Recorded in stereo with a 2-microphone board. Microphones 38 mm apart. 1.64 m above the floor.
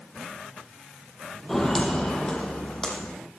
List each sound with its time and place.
1.5 s footsteps: 10° left (ahead or behind), 3 m; by 3.1 s 20° left (ahead or behind), 4 m